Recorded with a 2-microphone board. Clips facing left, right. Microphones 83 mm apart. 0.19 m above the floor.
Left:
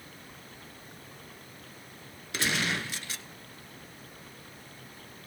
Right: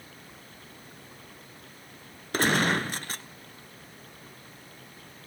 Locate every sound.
2.3 s a gunshot: 45° right (ahead or behind), 0.7 m